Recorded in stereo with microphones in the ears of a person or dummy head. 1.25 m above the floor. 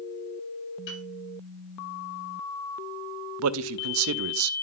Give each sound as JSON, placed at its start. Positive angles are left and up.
{"t": 0.9, "sound": "a piano", "side_deg": 70, "distance_m": 8.0}
{"t": 3.4, "sound": "a man speaking", "side_deg": -75, "distance_m": 0.6}